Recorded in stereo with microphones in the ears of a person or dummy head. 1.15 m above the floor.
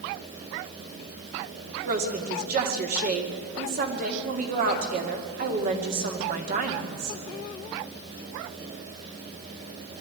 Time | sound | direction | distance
1.9 | a woman speaking | 45° right (ahead or behind) | 2.5 m